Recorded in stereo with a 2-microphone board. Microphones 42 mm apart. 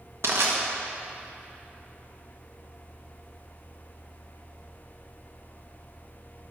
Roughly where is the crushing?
Right.